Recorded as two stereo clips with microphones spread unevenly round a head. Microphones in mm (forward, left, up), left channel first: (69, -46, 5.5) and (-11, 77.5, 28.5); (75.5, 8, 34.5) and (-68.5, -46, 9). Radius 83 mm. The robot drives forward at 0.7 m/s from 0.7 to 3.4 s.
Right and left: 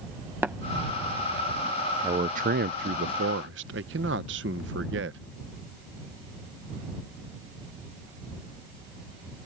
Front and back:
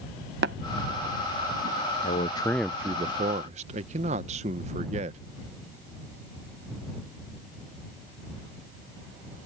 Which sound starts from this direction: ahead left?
A man speaking, at 2.0 s.